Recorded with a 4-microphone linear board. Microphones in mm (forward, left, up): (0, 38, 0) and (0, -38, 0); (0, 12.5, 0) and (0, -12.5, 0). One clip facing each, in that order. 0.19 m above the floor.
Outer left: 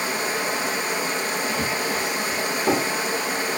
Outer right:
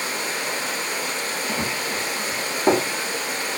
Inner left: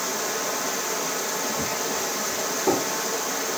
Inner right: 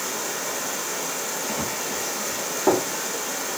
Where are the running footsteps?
35° right (ahead or behind), 8.5 m.